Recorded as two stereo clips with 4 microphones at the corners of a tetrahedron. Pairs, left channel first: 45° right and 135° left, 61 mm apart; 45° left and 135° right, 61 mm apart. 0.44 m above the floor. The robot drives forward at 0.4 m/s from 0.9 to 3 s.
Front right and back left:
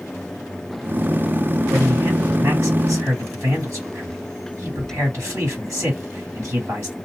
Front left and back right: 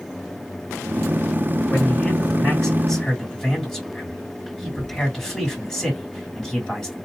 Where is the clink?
I don't hear a clink.